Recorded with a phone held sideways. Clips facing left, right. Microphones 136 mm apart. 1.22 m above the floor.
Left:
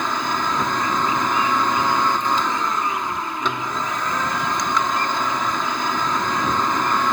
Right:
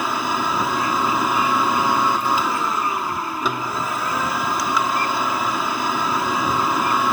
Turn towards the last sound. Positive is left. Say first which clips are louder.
# right 1 dB
turn(degrees=-5)  # may be behind; listen again after turning